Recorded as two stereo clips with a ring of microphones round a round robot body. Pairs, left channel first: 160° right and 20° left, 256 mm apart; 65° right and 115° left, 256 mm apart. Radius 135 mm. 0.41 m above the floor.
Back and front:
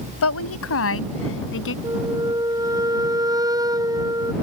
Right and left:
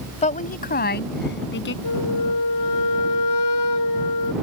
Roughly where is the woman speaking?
Behind right.